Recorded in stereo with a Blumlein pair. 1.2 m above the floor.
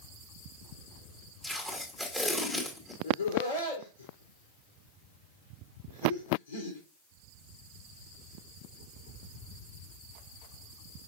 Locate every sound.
1.4 s tape being pulled: 10° left, 2 m
3.0 s laughter: 70° left, 2.5 m